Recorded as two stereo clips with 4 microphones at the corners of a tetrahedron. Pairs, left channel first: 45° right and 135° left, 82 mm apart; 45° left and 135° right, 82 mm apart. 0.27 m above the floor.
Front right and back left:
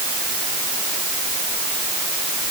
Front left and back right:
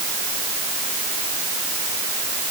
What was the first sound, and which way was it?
Only background noise.